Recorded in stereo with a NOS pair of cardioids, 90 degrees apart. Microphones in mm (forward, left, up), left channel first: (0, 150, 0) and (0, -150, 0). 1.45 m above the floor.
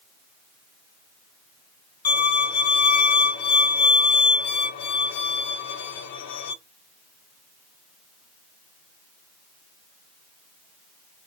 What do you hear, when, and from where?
2.0 s a violin: 65° left, 0.8 m